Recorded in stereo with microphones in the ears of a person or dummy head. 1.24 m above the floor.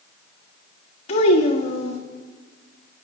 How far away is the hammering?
No hammering in this recording.